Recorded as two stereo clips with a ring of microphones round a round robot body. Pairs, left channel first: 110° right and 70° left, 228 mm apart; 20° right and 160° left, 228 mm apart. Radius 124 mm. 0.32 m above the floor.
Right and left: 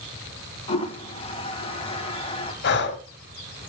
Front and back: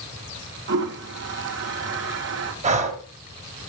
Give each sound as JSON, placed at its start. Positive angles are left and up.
{"t": 0.7, "sound": "a toilet flushing", "azimuth_deg": -175, "distance_m": 2.0}
{"t": 2.6, "sound": "breathing", "azimuth_deg": -145, "distance_m": 1.9}